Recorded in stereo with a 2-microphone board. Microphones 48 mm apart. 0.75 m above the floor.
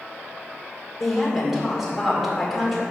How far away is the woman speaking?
About 2 m.